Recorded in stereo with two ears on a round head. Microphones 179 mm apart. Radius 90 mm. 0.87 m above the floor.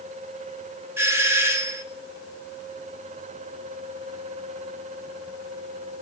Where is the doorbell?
15° right (ahead or behind), 2 m.